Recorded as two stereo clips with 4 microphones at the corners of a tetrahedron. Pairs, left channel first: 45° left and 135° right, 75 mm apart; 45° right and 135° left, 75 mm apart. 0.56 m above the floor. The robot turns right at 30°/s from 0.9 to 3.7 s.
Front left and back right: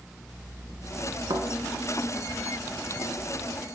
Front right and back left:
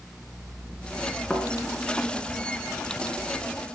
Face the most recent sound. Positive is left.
turn(degrees=-55)